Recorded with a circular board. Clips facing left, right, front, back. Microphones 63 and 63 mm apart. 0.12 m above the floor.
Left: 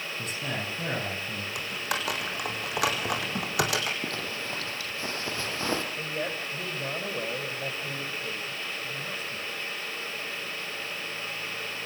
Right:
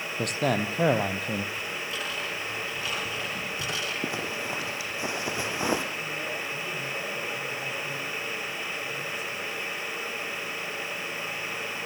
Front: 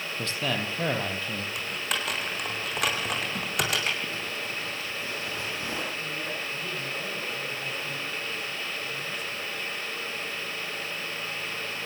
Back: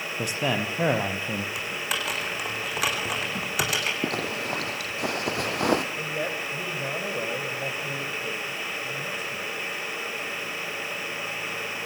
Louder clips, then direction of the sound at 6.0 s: Even, back 4 dB; 140° left.